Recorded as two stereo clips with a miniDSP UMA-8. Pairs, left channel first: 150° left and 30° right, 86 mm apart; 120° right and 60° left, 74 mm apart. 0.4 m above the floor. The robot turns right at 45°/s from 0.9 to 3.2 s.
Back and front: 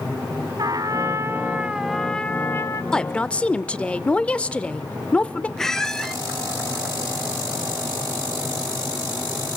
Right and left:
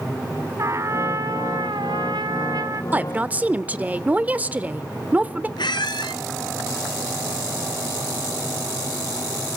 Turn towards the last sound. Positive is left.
turn(degrees=-125)